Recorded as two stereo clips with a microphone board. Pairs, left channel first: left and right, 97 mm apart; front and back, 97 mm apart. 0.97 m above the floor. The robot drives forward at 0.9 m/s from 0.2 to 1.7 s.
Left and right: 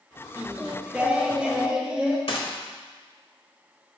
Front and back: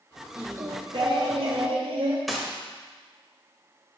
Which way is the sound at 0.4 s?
130° right.